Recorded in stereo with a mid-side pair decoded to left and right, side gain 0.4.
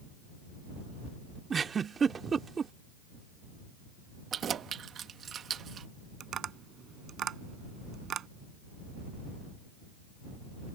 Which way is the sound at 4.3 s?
60° right.